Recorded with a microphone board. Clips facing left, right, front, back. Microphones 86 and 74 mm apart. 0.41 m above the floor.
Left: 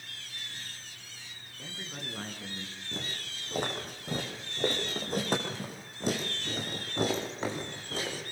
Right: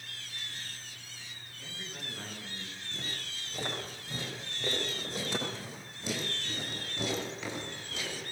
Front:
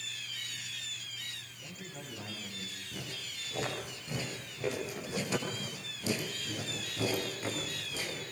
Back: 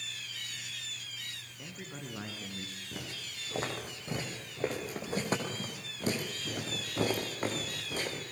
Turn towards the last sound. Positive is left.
turn(degrees=145)